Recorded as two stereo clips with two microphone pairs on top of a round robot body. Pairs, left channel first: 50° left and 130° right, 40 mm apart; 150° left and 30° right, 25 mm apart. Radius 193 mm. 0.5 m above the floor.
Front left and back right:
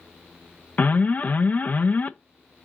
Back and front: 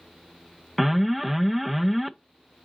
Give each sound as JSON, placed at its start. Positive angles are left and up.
{"t": 0.8, "sound": "an alarm", "azimuth_deg": 65, "distance_m": 0.5}